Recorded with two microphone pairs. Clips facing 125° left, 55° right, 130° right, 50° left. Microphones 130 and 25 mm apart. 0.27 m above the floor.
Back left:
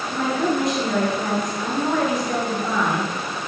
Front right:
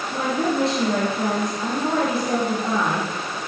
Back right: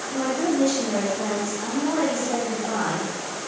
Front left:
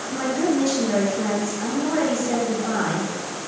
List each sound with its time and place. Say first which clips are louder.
0.1 s a woman speaking: back left 1 dB, front left 1 dB; straight ahead, 4 m